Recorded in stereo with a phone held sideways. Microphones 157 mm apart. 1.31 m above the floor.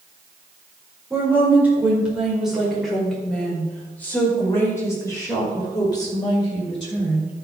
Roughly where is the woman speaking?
Centre.